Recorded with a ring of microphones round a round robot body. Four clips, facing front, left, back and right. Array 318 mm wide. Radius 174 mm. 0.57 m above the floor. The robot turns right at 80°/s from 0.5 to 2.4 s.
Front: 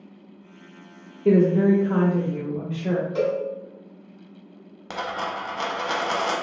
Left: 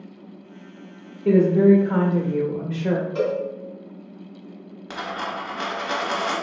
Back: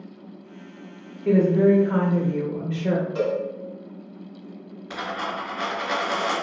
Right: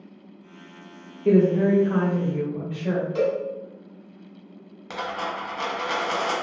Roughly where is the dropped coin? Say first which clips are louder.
Even, front 1 dB; ahead.